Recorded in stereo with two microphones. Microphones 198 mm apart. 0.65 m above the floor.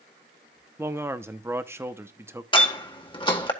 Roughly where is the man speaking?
Centre.